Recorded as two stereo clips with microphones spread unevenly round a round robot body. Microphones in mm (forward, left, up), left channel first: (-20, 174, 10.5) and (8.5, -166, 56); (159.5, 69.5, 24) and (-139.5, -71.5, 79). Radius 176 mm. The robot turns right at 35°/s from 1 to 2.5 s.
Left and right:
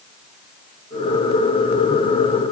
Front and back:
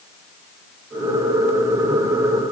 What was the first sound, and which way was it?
Only background noise.